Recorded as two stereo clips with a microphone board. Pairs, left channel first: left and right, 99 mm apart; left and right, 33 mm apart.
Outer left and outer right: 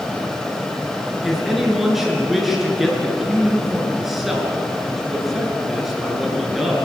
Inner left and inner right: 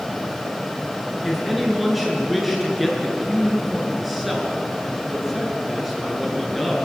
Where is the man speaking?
Centre (ahead or behind), 6.5 m.